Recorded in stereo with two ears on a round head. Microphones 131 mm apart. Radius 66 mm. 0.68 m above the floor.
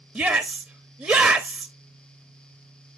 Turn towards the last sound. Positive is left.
turn(degrees=-10)  # may be behind; listen again after turning